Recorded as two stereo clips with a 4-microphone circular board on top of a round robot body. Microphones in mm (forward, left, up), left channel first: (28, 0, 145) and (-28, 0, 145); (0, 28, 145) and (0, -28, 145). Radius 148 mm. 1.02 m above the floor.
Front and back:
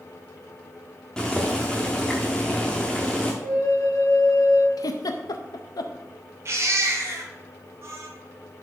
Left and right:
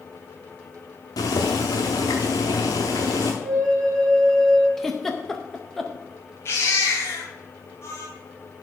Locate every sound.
1.2 s boiling: 75° left, 0.7 m
3.4 s a flute: 5° left, 1.5 m
4.8 s a giggle: 5° left, 0.6 m
6.5 s a baby crying: 135° left, 1.9 m